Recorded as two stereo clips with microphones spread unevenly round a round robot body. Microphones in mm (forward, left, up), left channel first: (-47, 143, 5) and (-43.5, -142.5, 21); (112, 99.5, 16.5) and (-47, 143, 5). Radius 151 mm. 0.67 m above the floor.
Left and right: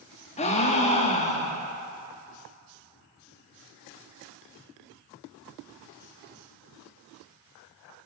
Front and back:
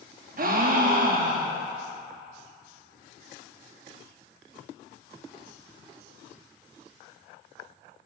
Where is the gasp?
155° left, 0.6 m.